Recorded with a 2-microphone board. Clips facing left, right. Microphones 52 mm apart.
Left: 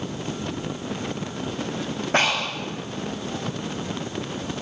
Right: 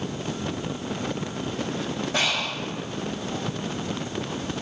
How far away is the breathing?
About 1.5 m.